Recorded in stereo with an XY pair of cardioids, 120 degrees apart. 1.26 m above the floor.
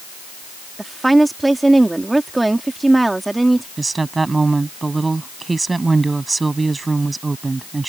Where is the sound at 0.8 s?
10° right.